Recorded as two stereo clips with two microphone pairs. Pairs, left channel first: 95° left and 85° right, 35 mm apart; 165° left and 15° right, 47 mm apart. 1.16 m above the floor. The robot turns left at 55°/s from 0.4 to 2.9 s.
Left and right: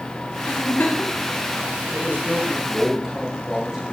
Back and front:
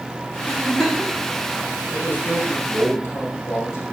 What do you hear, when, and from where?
0.5 s a giggle: 85° left, 4 m; by 1.2 s 45° left, 4 m
1.9 s a man speaking: 120° right, 5.5 m; by 3.8 s 175° right, 5.5 m